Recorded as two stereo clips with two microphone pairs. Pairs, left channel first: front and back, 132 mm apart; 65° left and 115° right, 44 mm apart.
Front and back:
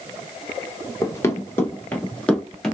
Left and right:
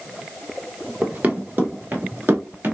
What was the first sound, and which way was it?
Running footsteps, 65° right.